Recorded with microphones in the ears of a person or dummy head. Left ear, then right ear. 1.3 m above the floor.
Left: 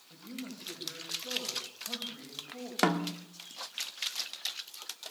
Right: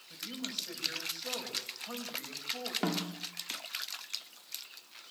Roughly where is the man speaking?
Right.